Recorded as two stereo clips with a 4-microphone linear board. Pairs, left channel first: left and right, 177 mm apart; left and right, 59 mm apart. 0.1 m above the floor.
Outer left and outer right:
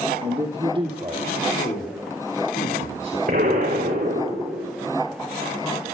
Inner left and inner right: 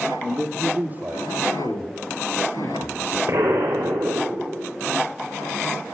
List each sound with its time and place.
0.2 s a man speaking: 35° right (ahead or behind), 2.5 m; by 1.3 s 25° right (ahead or behind), 3 m
1.5 s a man speaking: 50° left (ahead or behind), 2.5 m
3.3 s an explosion: 70° right (ahead or behind), 5.5 m